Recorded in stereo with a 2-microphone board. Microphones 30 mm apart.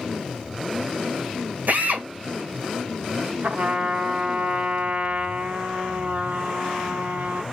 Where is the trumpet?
60° right (ahead or behind), 1.3 m.